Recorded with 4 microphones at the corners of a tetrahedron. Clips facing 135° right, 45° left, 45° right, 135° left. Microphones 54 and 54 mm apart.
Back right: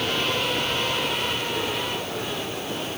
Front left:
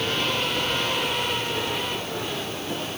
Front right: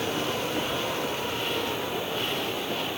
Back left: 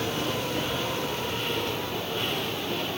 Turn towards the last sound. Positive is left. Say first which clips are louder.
# even, even
turn(degrees=120)